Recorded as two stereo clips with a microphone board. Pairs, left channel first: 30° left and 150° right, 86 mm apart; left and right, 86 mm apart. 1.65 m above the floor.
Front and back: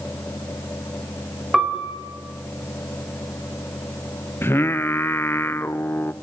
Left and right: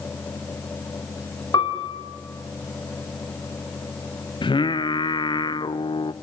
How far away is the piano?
About 3.5 m.